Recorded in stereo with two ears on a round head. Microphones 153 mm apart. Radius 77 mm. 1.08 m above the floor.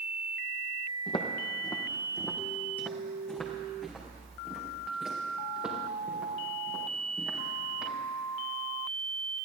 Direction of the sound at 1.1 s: 30° left (ahead or behind).